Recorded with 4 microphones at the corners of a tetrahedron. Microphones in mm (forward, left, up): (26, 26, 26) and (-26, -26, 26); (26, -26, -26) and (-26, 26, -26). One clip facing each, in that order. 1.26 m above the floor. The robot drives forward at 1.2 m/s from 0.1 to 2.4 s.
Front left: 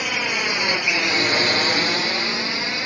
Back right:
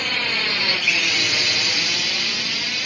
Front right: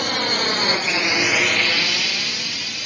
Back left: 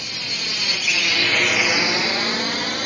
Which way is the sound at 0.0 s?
35° right.